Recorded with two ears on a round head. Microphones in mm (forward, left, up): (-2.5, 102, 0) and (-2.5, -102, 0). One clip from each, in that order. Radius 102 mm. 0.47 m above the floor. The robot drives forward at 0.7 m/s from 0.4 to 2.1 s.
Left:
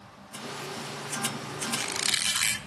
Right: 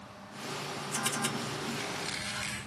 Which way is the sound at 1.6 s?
70° left (ahead or behind).